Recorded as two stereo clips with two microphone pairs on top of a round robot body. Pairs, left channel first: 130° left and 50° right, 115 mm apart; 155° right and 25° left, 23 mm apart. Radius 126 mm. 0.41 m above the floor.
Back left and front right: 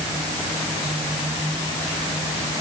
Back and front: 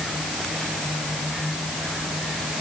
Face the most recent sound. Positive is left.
No sound to turn to.